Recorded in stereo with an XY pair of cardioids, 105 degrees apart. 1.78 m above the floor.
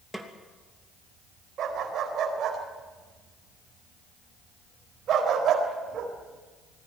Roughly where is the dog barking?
Ahead right.